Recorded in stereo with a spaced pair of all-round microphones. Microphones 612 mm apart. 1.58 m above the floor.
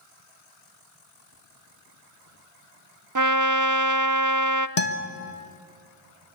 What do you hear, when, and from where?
3.1 s a trumpet: 30° right (ahead or behind), 0.6 m
4.8 s a guitar: 75° left (ahead or behind), 1.3 m